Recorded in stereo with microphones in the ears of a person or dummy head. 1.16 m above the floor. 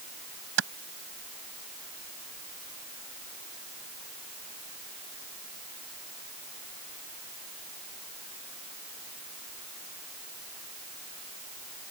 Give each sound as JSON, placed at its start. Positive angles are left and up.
{"t": 0.6, "sound": "a clap", "side_deg": -85}